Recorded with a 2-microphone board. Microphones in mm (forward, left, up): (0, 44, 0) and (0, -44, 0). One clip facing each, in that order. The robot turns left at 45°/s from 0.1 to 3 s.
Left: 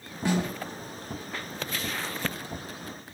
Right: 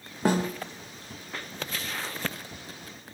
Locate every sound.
0.2 s a snare drum: 45° right (ahead or behind), 1.0 m; by 0.5 s 35° right (ahead or behind), 1.0 m